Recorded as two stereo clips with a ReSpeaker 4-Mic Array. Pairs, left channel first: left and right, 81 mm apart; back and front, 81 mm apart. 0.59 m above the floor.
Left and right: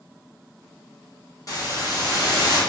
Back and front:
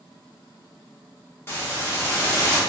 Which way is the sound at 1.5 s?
125° left.